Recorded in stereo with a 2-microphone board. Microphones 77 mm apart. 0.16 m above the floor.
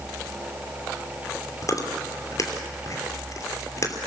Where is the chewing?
45° left (ahead or behind), 3 m.